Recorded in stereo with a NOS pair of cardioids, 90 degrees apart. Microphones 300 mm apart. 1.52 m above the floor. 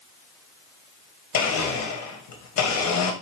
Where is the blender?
65° left, 1.2 m.